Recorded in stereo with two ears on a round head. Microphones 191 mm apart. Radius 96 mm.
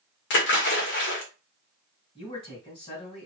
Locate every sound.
0.3 s a splash: 55° left (ahead or behind), 1.6 m
2.1 s a man speaking: 25° left (ahead or behind), 2.5 m